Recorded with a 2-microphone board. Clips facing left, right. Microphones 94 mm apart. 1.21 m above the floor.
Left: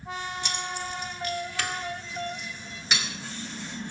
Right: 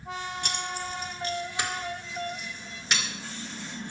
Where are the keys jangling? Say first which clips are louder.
Even; 50° right (ahead or behind), 1.8 m; by 3.0 s 10° left (ahead or behind), 2.5 m.